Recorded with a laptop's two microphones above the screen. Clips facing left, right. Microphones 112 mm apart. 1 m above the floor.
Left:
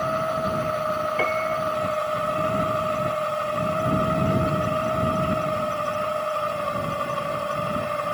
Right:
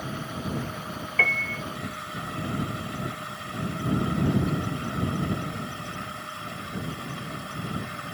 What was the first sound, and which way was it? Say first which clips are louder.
A machine running: left 10 dB; 70° left (ahead or behind).